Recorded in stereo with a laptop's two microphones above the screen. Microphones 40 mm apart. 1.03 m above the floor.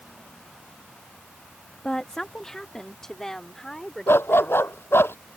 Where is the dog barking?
85° left.